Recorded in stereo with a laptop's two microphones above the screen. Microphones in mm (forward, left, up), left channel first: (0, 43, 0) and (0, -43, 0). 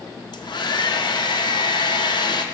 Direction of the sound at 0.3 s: 55° left (ahead or behind).